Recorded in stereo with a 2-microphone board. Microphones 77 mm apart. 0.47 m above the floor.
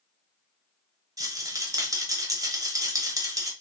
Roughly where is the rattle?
Right.